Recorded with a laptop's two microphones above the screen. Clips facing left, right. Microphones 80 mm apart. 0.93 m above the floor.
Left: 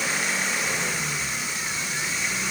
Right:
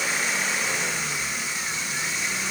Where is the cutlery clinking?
No cutlery clinking in this recording.